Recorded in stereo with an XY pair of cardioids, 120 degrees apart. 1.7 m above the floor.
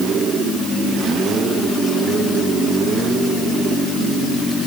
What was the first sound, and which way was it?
Only background noise.